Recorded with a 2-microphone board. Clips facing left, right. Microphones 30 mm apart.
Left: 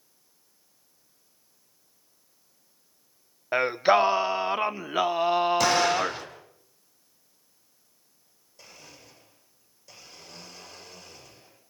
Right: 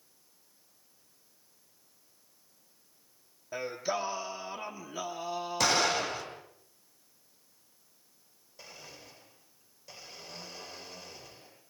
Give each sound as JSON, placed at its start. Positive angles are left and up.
{"t": 3.5, "sound": "singing", "side_deg": 50, "distance_m": 0.8}
{"t": 5.6, "sound": "an explosion", "side_deg": 0, "distance_m": 8.5}
{"t": 8.6, "sound": "a blender", "side_deg": -10, "distance_m": 8.5}